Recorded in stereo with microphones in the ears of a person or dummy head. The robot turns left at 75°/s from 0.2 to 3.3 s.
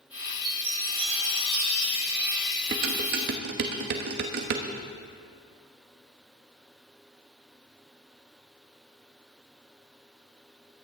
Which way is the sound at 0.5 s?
30° right.